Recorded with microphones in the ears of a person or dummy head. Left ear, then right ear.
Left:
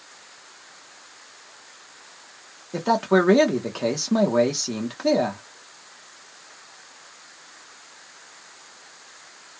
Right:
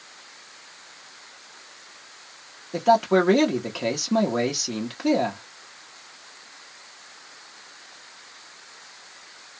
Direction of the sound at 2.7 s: Centre (ahead or behind).